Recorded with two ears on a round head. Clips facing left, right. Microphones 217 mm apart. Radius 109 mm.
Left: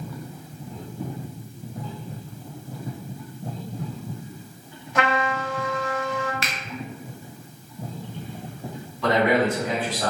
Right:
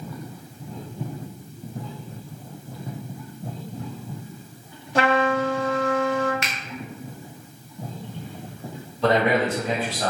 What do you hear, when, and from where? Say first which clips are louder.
5.0 s a trumpet: right 4 dB; 30° right (ahead or behind), 0.6 m
6.4 s a finger snap: even; 30° left (ahead or behind), 0.8 m
9.0 s a man speaking: even; 30° right (ahead or behind), 1.9 m